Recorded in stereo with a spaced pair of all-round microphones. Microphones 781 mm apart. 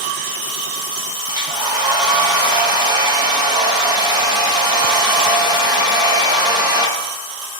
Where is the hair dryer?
5° right (ahead or behind), 0.7 m.